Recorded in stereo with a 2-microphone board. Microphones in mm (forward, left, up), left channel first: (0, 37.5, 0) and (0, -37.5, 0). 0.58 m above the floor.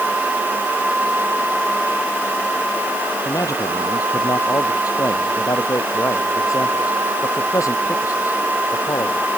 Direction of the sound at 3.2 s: 50° left (ahead or behind).